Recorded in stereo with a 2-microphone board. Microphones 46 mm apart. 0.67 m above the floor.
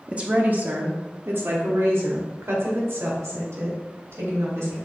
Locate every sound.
0.1 s a woman speaking: 25° right (ahead or behind), 0.8 m; by 4.8 s 75° right (ahead or behind), 3.5 m